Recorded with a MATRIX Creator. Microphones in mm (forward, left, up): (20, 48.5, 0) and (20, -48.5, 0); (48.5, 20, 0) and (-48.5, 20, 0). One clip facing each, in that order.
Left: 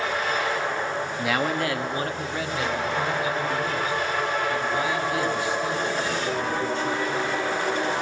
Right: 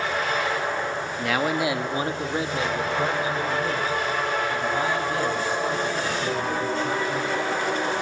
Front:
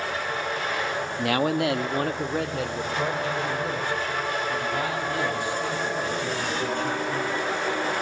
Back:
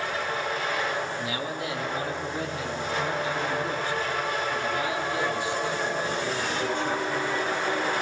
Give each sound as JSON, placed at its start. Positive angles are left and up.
{"t": 1.2, "sound": "a man speaking", "azimuth_deg": 10, "distance_m": 1.0}